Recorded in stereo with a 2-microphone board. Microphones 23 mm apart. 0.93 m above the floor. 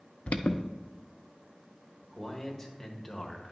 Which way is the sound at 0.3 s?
70° left (ahead or behind).